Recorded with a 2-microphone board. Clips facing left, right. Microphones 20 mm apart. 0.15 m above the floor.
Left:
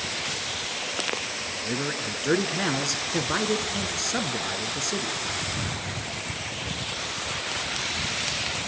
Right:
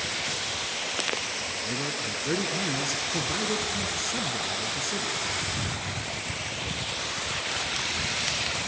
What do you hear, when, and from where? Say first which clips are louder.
1.6 s a man speaking: left 1 dB; 35° left (ahead or behind), 1.8 m